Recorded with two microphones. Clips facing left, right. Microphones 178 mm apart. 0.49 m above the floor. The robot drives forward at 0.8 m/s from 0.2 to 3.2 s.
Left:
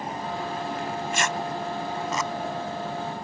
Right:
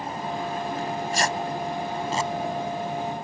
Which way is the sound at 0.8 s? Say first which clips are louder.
Right 3 dB; 40° right (ahead or behind).